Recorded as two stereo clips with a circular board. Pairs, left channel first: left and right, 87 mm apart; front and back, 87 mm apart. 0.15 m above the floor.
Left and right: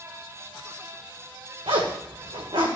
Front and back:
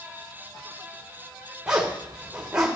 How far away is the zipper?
About 2.5 m.